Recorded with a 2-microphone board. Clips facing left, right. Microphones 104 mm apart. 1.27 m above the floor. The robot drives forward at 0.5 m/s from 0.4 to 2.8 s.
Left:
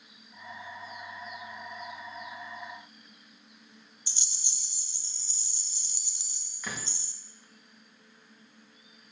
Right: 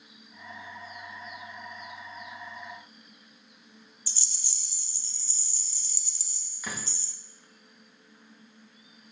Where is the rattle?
20° left (ahead or behind), 0.6 m.